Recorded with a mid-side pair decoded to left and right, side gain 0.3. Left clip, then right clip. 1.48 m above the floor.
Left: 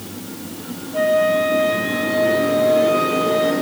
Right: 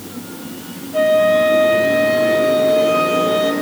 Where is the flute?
55° right, 3.5 m.